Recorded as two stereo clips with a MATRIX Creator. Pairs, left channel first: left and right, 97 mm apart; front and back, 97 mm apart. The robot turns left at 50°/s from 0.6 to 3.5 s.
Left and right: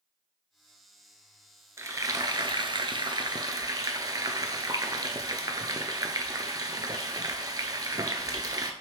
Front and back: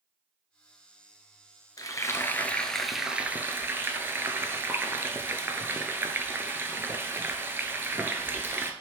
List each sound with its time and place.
1.8 s frying: 35° right, 0.5 m; by 8.7 s 120° right, 0.5 m